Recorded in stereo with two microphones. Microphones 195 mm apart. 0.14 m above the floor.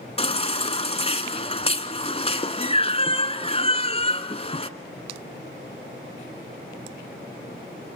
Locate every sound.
0.2 s a baby crying: 30° left (ahead or behind), 1.1 m